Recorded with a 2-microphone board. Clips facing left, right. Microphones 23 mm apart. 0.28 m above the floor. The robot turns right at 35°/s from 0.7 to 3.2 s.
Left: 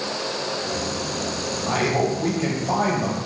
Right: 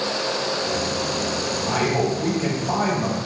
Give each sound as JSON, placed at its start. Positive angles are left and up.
{"t": 1.7, "sound": "a man speaking", "side_deg": 25, "distance_m": 1.0}